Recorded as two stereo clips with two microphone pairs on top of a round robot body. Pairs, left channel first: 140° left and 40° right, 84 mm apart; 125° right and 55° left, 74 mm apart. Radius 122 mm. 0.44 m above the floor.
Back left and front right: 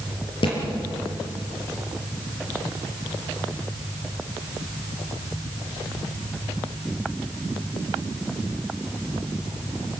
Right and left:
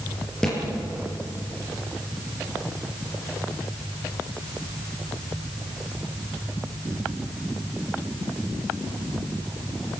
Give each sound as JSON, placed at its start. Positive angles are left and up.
{"t": 0.4, "sound": "a thud", "azimuth_deg": 155, "distance_m": 6.5}